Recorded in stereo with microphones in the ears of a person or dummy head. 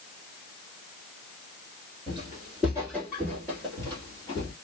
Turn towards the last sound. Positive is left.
turn(degrees=15)  # may be behind; listen again after turning